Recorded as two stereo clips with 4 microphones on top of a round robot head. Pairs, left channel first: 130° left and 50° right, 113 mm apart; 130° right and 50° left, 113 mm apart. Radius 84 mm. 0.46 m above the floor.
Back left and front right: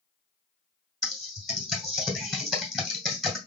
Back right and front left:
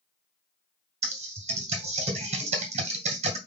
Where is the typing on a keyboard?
40° left, 2 m.